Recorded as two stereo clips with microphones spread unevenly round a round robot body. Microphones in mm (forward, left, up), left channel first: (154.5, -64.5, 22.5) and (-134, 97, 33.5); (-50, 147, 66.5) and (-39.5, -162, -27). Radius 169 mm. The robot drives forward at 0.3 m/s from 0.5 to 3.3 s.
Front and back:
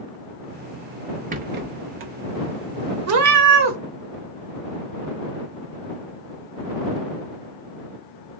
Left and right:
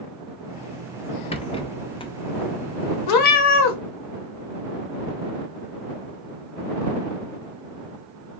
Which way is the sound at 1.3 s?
Straight behind.